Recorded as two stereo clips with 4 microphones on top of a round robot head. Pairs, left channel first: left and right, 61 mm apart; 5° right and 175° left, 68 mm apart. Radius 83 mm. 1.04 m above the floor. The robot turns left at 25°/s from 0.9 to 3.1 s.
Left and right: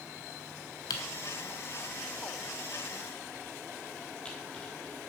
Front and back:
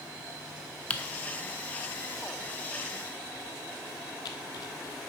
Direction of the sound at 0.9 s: 65° left.